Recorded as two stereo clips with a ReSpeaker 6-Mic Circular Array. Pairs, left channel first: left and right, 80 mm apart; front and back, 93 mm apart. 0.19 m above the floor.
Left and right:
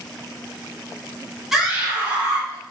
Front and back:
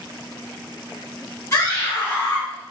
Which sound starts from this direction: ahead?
A scream, at 1.5 s.